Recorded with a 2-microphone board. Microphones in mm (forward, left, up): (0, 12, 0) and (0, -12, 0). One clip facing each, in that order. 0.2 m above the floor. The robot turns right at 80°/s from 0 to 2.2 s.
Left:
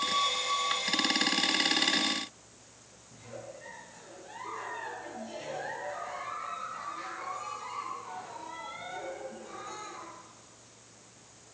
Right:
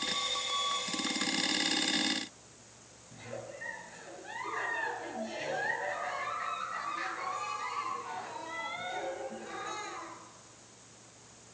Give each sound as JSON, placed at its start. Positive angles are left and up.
{"t": 3.1, "sound": "a giggle", "side_deg": -40, "distance_m": 2.5}